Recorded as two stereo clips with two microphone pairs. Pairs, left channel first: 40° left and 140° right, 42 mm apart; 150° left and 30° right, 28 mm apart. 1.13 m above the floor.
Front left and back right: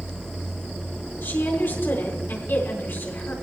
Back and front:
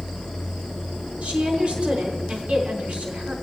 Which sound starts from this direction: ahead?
A woman speaking, at 1.2 s.